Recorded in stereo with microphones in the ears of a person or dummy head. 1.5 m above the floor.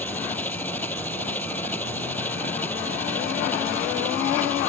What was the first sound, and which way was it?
An engine running, 10° left (ahead or behind).